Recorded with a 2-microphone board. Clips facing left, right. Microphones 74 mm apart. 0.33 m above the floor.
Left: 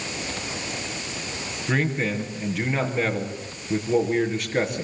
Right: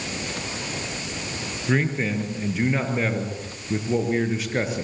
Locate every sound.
1.7 s a man speaking: centre (ahead or behind), 6.5 m